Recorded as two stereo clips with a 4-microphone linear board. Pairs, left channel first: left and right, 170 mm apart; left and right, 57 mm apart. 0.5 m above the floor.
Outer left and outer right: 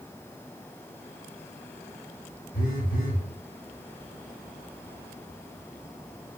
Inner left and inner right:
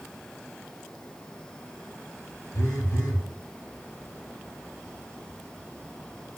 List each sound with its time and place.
2.5 s a phone buzzing: 55° left (ahead or behind), 0.5 m